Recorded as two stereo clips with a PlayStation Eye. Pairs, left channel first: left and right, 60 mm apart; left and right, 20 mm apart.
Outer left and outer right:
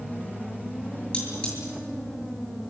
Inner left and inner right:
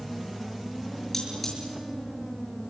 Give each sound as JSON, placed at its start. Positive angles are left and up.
{"t": 1.1, "sound": "cutlery clinking", "side_deg": 20, "distance_m": 7.5}